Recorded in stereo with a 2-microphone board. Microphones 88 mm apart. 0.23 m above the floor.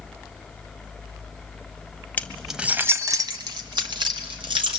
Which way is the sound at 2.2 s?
20° left (ahead or behind).